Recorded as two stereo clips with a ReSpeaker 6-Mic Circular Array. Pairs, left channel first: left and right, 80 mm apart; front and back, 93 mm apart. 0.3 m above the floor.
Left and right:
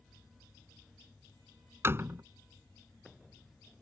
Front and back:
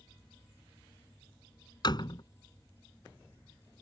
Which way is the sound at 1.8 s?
30° right.